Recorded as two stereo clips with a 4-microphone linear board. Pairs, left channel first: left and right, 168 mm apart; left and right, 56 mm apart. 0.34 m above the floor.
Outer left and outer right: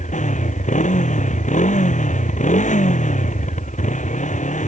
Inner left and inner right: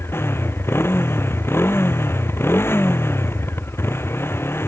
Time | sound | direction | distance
0.0 | a motorcycle | 45° left (ahead or behind) | ?